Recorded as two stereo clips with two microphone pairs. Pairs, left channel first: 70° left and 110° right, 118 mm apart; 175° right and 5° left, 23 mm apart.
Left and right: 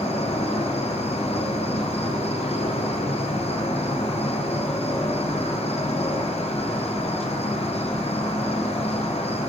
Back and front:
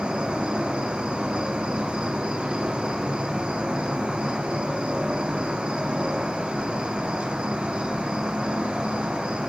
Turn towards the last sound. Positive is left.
turn(degrees=45)